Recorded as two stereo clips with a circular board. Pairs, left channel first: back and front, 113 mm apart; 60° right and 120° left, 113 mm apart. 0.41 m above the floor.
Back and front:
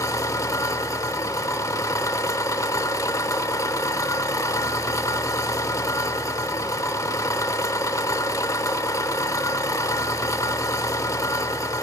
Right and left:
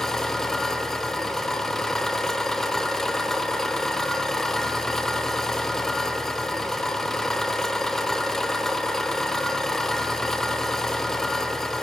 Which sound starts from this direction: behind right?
An engine running, at 0.0 s.